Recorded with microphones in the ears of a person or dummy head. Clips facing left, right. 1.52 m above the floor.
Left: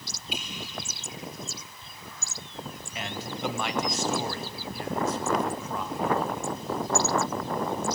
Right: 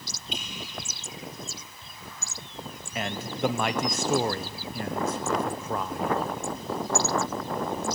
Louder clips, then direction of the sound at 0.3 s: Left 1 dB; 5° left (ahead or behind).